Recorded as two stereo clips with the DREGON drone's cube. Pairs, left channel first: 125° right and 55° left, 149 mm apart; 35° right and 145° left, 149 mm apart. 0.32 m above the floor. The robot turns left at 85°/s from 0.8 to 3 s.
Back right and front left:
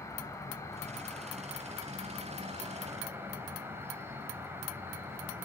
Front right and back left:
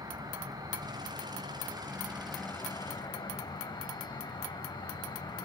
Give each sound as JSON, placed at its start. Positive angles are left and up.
{"t": 0.0, "sound": "an insect", "azimuth_deg": -175, "distance_m": 2.5}